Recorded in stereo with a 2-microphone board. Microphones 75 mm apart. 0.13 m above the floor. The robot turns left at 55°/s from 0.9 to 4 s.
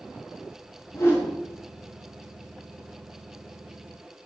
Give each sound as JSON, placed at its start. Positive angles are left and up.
{"t": 0.9, "sound": "a whoosh", "side_deg": 45, "distance_m": 6.0}